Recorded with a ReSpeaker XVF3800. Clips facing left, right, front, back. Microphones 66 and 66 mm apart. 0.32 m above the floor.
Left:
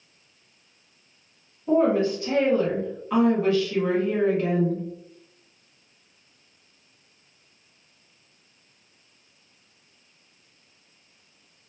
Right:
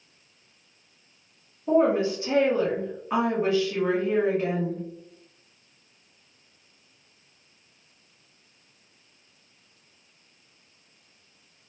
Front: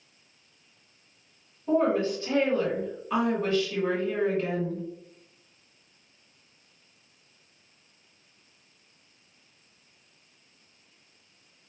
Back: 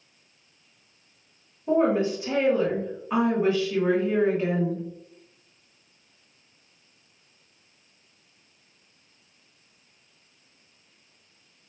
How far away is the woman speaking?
About 1.1 m.